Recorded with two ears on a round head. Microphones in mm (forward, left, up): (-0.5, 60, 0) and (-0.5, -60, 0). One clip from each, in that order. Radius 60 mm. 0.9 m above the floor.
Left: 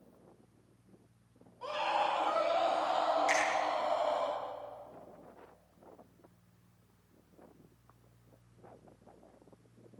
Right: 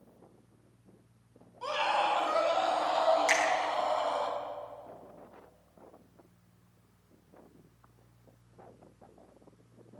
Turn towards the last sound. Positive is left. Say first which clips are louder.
# right 3 dB
turn(degrees=-25)  # may be behind; listen again after turning